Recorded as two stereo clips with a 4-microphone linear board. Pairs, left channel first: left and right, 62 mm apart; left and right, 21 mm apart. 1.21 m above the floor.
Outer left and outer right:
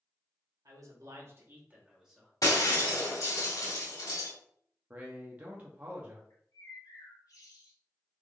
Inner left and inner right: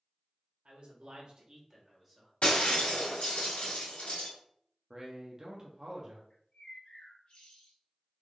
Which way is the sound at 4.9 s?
25° right (ahead or behind).